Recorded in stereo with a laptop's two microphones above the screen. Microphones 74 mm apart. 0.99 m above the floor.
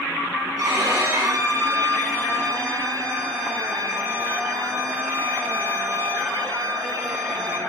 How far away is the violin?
About 3 m.